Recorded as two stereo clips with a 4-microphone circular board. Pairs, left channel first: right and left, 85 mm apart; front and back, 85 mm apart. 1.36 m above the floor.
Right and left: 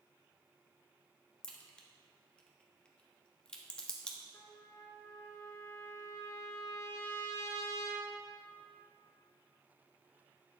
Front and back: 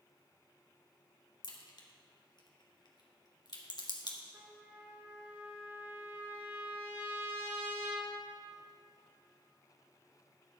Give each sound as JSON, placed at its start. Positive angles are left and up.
{"t": 1.4, "sound": "a crack", "azimuth_deg": -15, "distance_m": 1.1}
{"t": 4.3, "sound": "a trumpet", "azimuth_deg": -125, "distance_m": 1.0}